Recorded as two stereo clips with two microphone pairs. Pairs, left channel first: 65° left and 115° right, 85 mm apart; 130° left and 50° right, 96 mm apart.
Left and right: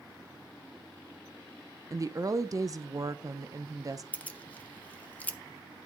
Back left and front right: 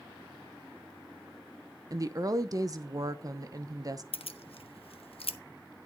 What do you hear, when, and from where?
1.9 s a woman speaking: 85° right, 0.8 m
4.1 s keys jangling: 140° left, 0.8 m